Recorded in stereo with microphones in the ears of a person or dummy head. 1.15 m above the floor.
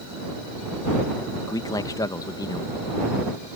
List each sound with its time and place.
1.5 s a man speaking: 20° left (ahead or behind)